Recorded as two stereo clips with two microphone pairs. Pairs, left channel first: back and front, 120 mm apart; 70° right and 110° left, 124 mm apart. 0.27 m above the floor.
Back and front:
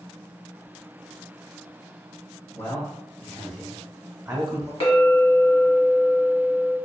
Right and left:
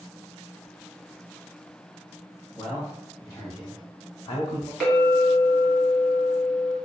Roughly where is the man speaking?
Behind right.